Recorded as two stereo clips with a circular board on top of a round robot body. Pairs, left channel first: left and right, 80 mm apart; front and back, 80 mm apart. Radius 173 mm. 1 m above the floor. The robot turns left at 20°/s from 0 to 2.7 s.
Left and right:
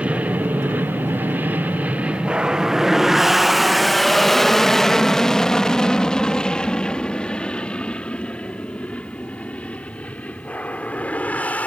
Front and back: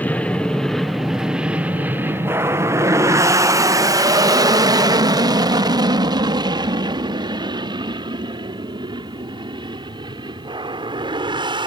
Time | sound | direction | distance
0.0 | an aircraft | 40° right | ?